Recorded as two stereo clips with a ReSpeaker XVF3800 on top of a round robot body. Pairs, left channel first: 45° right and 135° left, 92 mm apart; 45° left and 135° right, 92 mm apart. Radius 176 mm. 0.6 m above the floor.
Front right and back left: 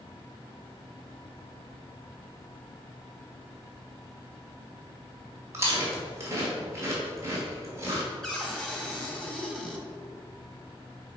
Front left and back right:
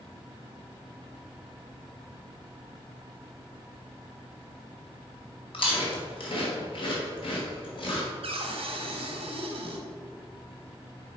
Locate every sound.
5.5 s chewing: 75° left, 2 m
8.2 s a cupboard door: 130° right, 1.4 m